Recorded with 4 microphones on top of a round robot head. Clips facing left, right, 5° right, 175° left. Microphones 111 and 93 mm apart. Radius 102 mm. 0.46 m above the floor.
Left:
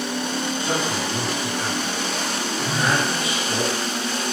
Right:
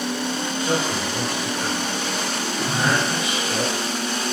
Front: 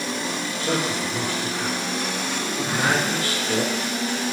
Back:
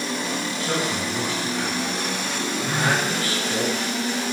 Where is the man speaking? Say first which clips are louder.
Right 4 dB, front 2 dB; 15° left, 1.2 m.